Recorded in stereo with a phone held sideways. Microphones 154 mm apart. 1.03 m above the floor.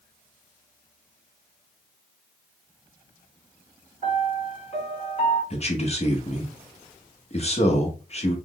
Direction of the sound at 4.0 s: 45° left (ahead or behind).